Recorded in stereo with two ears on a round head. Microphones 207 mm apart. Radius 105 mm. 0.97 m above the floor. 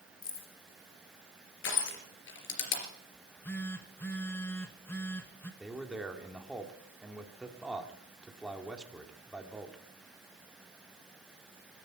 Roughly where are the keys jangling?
Left.